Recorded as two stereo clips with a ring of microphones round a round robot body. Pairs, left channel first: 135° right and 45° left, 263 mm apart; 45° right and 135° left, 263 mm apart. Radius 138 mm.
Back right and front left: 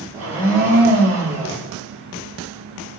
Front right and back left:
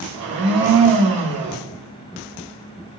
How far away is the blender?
About 1.4 m.